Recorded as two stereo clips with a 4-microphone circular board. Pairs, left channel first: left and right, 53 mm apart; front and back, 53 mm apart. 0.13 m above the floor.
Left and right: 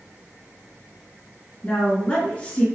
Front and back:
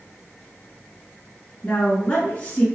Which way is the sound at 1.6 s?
40° left.